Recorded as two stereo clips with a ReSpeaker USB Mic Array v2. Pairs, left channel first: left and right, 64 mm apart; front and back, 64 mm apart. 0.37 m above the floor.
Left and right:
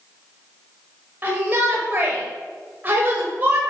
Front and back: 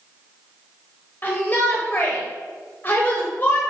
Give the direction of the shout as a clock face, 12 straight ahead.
2 o'clock.